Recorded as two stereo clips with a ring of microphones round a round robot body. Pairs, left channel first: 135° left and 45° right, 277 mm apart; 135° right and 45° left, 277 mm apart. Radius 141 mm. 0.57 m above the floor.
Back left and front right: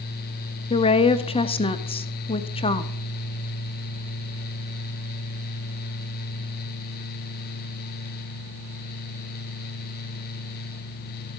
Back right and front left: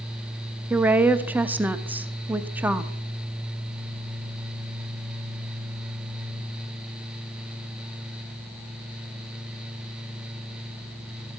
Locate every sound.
0.7 s a woman speaking: 115° left, 0.6 m